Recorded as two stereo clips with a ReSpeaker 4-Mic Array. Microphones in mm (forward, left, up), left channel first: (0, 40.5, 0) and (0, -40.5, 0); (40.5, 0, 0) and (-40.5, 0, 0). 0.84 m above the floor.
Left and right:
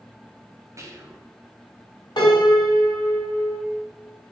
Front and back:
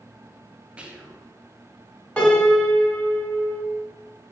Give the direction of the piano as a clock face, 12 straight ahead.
10 o'clock.